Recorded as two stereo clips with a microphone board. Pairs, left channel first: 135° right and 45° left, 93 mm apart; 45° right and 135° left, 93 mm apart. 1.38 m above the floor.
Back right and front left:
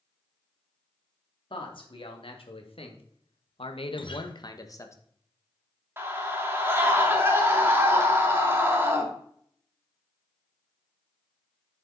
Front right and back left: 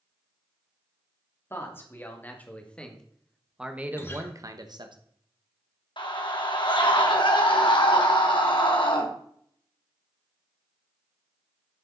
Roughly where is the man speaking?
Right.